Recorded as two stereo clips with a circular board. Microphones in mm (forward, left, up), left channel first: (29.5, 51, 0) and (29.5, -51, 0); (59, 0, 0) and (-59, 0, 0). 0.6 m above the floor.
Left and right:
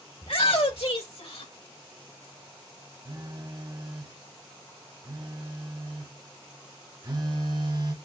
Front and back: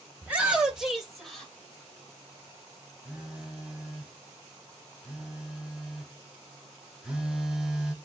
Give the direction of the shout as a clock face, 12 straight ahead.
9 o'clock.